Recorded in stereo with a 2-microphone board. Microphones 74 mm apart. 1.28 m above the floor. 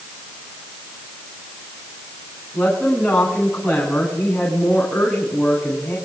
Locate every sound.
2.5 s a woman speaking: 5° right (ahead or behind), 10 m